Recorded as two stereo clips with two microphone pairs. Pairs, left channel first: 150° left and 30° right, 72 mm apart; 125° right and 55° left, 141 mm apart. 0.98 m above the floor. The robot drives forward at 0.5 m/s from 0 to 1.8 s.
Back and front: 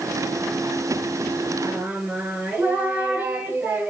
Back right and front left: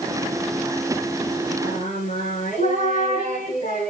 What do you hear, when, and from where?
1.6 s singing: 100° right, 5 m; by 3.9 s 105° right, 5 m